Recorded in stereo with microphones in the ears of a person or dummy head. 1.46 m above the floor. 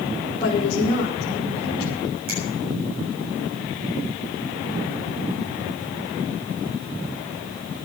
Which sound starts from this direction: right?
A finger snap, at 2.3 s.